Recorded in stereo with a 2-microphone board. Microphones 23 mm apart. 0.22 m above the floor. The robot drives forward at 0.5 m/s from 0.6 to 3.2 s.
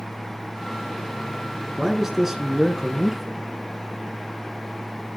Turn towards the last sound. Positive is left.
turn(degrees=-15)  # may be behind; listen again after turning